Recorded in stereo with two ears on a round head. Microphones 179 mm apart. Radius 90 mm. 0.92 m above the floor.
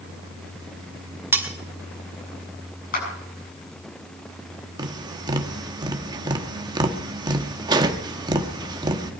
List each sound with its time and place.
1.3 s cutlery clinking: 10° right (ahead or behind), 2 m
2.9 s a clap: 45° left (ahead or behind), 6.5 m
4.8 s tapping: 20° right (ahead or behind), 1.1 m